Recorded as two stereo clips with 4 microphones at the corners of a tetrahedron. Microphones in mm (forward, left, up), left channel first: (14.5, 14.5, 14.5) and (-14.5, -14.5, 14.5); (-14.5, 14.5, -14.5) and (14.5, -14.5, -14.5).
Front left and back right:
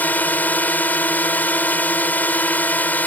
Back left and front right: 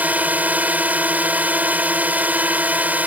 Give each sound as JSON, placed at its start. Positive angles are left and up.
{"t": 0.0, "sound": "a drone", "azimuth_deg": 5}